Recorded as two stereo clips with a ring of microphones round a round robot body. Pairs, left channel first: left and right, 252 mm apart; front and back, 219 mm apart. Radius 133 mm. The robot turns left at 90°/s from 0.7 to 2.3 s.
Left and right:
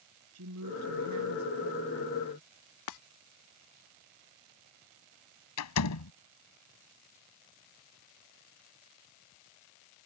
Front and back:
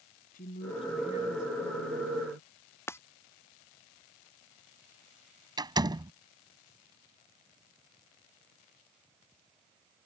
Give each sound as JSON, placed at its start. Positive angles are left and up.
{"t": 0.3, "sound": "a woman speaking", "azimuth_deg": -60}
{"t": 2.9, "sound": "breaking glass", "azimuth_deg": 80}
{"t": 5.6, "sound": "a door slam", "azimuth_deg": 110}